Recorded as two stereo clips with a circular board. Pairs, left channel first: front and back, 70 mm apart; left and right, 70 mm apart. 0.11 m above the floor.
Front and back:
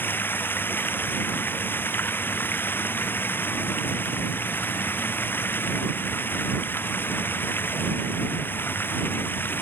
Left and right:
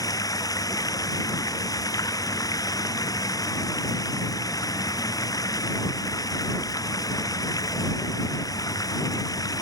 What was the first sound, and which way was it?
Running water, 60° left.